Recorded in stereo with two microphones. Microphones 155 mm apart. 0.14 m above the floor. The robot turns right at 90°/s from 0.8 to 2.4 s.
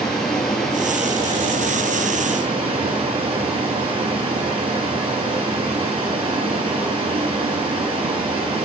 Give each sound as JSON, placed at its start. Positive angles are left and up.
{"t": 0.0, "sound": "running water", "azimuth_deg": 175, "distance_m": 3.0}